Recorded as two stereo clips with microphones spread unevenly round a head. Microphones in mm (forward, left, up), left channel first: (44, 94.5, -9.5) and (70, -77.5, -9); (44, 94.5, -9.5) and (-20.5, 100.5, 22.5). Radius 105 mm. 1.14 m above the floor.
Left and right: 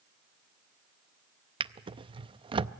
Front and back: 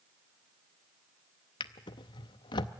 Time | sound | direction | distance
1.6 | a drawer | 30° right | 0.5 m